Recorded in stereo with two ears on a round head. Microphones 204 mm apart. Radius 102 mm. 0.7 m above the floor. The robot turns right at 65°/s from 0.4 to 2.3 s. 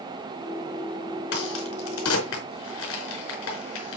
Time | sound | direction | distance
1.3 | a crack | 55° left (ahead or behind) | 4.5 m